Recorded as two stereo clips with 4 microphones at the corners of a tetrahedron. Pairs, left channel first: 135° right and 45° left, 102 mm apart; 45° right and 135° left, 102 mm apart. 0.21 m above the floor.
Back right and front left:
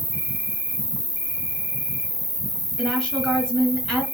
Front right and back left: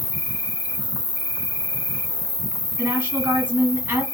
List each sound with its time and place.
0.0 s an insect: 10° left, 2 m
2.8 s a woman speaking: 150° left, 1.3 m